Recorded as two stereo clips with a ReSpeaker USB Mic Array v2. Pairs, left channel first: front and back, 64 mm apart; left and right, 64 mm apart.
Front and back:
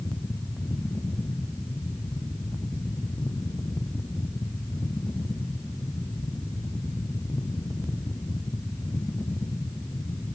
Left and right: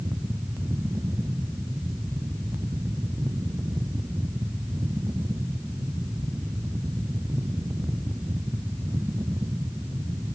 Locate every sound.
Only background noise.